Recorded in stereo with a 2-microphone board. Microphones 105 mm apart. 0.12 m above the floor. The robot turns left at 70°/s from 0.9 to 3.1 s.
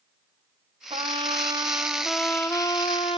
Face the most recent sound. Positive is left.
turn(degrees=110)